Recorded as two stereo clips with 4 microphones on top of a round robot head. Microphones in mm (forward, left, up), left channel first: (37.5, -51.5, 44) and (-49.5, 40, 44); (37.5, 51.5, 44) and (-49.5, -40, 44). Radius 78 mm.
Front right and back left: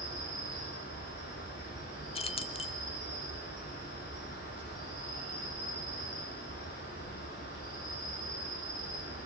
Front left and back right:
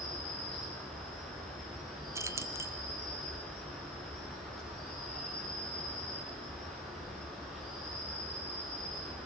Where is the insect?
45° right, 6.5 m.